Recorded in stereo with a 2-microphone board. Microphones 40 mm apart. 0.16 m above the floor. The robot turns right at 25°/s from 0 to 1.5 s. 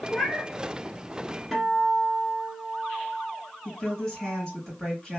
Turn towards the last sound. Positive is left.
turn(degrees=10)  # may be behind; listen again after turning